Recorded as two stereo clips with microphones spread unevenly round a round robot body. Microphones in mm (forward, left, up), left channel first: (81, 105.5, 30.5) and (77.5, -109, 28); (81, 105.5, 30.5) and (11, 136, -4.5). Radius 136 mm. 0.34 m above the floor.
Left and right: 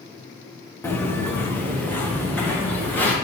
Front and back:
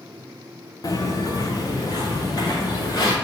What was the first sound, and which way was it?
Footsteps, 10° left.